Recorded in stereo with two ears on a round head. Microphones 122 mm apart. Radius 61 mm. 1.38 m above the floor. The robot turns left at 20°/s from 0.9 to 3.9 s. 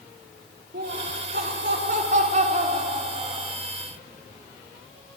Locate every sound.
0.7 s laughter: 95° right, 4.5 m; by 3.5 s 145° right, 4.5 m